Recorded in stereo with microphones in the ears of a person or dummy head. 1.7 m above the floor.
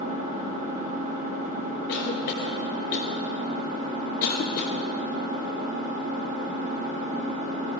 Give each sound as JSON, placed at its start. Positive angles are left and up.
{"t": 0.0, "sound": "an engine running", "side_deg": -45, "distance_m": 2.5}
{"t": 1.9, "sound": "a cough", "side_deg": 50, "distance_m": 0.6}